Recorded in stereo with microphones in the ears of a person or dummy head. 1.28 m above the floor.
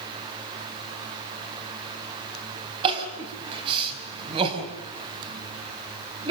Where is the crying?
30° right (ahead or behind), 4 m.